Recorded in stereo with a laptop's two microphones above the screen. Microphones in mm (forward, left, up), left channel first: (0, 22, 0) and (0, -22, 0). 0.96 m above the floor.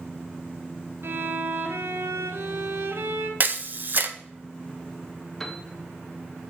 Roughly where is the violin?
Right.